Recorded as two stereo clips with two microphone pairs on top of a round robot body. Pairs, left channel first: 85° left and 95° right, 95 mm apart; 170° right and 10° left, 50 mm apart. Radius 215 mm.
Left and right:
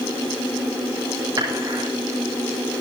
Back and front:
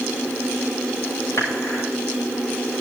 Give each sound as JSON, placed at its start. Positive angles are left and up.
{"t": 1.4, "sound": "dishes clattering", "azimuth_deg": -140, "distance_m": 9.5}